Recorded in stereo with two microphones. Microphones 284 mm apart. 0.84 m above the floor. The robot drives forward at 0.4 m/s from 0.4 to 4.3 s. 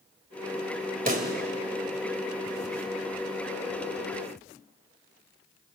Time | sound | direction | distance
1.1 | a pop | 35° right (ahead or behind) | 2.5 m